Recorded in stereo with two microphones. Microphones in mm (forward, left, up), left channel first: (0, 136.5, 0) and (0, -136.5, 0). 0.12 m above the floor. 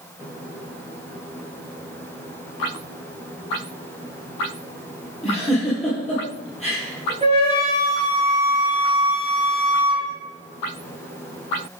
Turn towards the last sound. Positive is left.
turn(degrees=-25)  # may be behind; listen again after turning